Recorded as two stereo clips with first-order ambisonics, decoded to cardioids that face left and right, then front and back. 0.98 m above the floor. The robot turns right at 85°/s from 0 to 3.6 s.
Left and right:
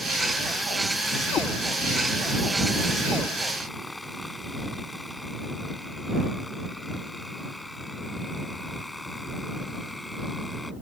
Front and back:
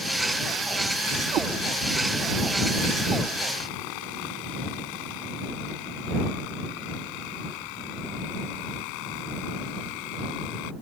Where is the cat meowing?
135° left; by 1.5 s 150° left.